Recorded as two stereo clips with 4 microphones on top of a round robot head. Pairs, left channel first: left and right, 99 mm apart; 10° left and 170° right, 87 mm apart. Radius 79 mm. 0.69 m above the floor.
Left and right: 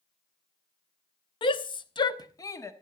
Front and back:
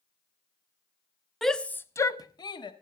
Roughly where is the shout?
Left.